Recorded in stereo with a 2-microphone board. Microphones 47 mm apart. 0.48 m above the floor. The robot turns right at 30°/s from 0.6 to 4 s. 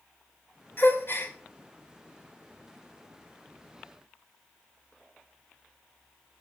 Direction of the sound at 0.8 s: 50° left (ahead or behind).